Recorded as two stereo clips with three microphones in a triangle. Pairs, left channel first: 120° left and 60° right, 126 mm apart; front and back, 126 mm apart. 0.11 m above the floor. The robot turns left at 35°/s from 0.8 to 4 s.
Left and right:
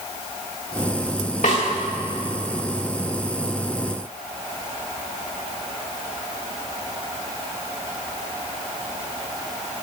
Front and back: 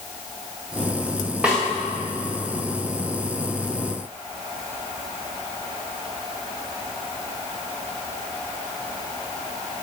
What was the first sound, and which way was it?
A snare drum, 100° left.